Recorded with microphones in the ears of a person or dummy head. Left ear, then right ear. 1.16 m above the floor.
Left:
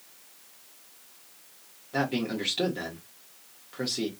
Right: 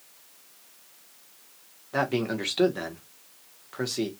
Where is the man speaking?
35° right (ahead or behind), 0.9 m.